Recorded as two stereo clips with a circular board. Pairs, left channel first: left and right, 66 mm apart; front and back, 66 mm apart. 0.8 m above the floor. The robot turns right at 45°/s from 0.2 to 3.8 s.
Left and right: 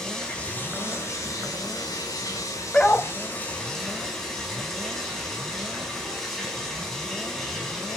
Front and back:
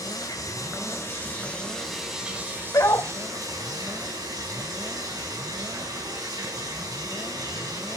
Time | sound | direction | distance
0.0 | running water | 10° left | 5.5 m
2.7 | a dog barking | 15° left | 1.1 m